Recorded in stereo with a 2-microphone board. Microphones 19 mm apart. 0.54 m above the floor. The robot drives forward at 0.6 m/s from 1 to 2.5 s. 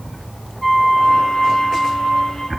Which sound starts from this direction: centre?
A flute, at 0.6 s.